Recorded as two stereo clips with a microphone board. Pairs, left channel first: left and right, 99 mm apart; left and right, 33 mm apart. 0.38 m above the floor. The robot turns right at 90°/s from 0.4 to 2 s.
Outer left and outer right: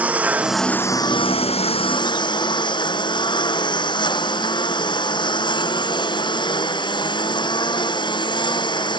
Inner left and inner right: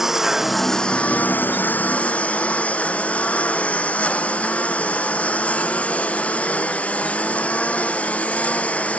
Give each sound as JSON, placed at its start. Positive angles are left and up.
{"t": 0.0, "sound": "a lawn mower", "azimuth_deg": -15}